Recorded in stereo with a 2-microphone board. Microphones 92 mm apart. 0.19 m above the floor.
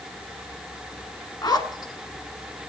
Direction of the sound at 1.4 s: 50° left (ahead or behind).